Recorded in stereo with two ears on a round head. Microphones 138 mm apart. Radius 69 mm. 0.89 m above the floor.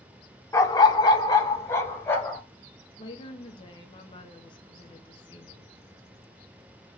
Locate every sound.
0.5 s a dog barking: 20° left (ahead or behind), 0.5 m; by 2.4 s 15° left (ahead or behind), 1.4 m
3.0 s a woman speaking: 35° left (ahead or behind), 0.8 m